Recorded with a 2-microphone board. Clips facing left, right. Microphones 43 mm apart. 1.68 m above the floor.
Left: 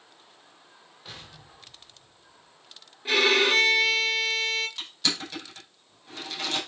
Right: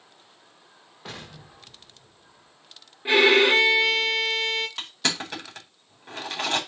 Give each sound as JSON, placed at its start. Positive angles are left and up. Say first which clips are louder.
{"t": 1.1, "sound": "an explosion", "louder": "right 5 dB", "side_deg": -75, "distance_m": 2.5}
{"t": 3.0, "sound": "a violin", "louder": "right 4 dB", "side_deg": -30, "distance_m": 1.9}
{"t": 4.8, "sound": "crushing", "louder": "right 2 dB", "side_deg": -60, "distance_m": 4.5}